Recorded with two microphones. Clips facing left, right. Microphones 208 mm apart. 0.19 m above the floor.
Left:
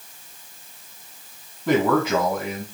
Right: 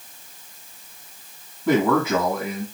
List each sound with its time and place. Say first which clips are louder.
1.7 s a man speaking: even; 10° left (ahead or behind), 1.5 m